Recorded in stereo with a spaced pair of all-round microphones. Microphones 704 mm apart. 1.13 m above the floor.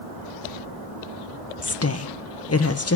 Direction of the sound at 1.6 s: 25° left (ahead or behind).